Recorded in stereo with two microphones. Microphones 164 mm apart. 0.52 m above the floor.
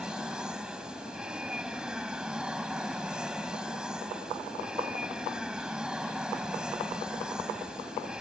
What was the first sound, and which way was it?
An aircraft, 5° right (ahead or behind).